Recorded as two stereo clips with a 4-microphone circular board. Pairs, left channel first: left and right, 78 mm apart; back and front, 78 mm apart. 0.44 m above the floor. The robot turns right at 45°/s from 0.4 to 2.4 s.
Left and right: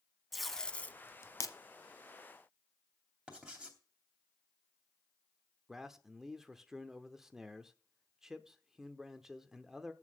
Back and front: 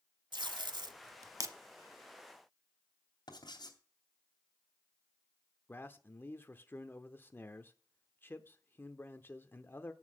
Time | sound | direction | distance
0.3 | tape being pulled | straight ahead | 0.8 m
3.3 | writing | 165° right | 3 m
5.7 | a man speaking | 170° right | 0.8 m